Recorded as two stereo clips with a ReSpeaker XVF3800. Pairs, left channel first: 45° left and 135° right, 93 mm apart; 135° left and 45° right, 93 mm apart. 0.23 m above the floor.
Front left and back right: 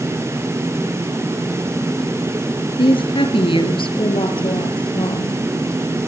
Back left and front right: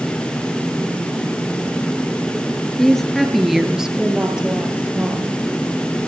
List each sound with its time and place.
2.8 s a woman speaking: 50° left, 4 m; by 5.4 s 30° left, 7 m